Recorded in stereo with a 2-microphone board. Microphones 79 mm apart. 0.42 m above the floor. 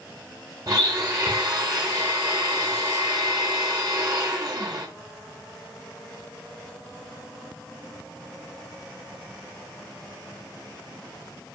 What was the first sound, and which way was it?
A blender, 45° right (ahead or behind).